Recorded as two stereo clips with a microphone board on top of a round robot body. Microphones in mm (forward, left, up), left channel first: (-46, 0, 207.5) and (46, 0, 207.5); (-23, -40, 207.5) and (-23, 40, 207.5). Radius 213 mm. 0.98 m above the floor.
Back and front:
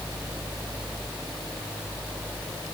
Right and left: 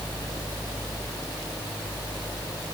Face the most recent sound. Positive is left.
No sound to turn to.